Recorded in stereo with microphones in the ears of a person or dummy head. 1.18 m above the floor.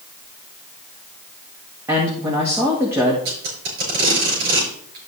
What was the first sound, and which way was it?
A man speaking, 15° right (ahead or behind).